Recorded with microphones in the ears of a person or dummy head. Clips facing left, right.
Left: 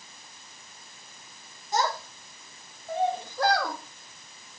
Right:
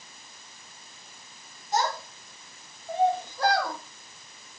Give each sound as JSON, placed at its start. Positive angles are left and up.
{"t": 1.7, "sound": "a child speaking", "side_deg": 75, "distance_m": 3.5}